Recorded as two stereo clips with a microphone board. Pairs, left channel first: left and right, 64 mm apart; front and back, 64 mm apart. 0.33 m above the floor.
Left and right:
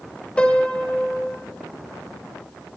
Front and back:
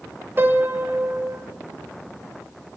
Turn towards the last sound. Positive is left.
turn(degrees=150)